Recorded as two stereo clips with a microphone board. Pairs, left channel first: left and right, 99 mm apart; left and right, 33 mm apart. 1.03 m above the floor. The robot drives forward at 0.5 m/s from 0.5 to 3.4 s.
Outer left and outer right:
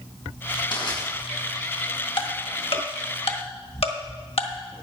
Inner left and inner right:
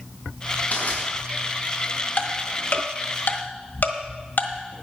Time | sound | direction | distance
0.7 | crushing | 55° left (ahead or behind) | 4 m
2.2 | ticking | 60° left (ahead or behind) | 1.5 m